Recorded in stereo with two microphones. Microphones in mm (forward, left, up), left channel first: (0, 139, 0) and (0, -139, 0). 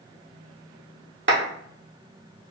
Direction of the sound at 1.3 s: 45° right (ahead or behind).